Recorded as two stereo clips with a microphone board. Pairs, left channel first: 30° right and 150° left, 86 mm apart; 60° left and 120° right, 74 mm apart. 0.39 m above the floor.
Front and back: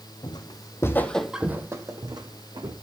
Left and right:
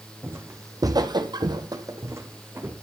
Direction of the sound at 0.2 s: 60° right.